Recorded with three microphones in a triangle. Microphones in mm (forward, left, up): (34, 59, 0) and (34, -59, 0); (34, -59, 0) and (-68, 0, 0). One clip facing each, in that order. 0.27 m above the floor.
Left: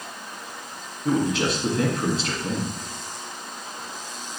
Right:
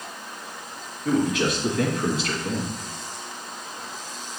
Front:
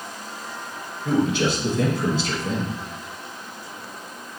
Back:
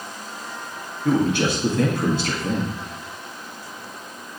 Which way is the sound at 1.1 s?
145° left.